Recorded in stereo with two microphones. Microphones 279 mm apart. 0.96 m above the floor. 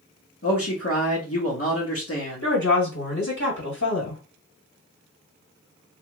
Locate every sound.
0.4 s a man speaking: 55° left (ahead or behind), 1.2 m
2.4 s a woman speaking: 80° left, 1.7 m